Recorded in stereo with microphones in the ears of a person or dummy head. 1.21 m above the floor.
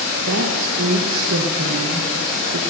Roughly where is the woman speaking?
Right.